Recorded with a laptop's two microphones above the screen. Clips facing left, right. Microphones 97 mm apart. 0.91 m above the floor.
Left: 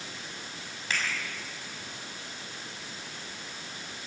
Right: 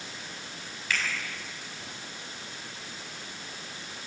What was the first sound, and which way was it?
A finger snap, 30° left (ahead or behind).